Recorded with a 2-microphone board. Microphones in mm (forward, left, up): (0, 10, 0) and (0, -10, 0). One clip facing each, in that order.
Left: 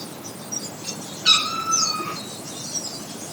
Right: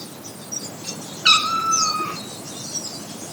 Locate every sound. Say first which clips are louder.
1.2 s a cat meowing: right 2 dB; 60° right (ahead or behind), 2.5 m